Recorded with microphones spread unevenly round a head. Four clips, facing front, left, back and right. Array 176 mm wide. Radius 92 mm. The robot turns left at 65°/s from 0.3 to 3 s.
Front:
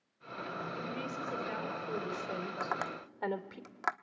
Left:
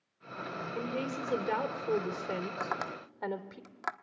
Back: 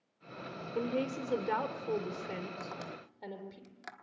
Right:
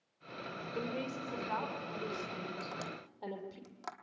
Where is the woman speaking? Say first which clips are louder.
Left 3 dB, back 5 dB; straight behind, 3 m; by 3.6 s 35° left, 3 m.